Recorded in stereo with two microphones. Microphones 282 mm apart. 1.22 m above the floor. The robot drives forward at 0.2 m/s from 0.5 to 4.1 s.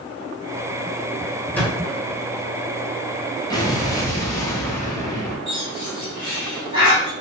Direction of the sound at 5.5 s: 15° right (ahead or behind).